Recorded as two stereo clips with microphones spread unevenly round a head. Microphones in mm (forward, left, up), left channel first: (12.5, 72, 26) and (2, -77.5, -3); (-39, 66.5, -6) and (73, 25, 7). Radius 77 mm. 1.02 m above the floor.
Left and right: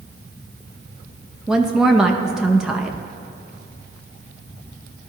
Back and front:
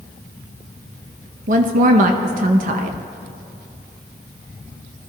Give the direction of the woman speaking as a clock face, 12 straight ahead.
12 o'clock.